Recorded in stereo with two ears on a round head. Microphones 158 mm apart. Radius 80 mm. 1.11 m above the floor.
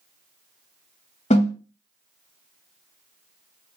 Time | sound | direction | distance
1.3 | a snare drum | 40° left (ahead or behind) | 1.8 m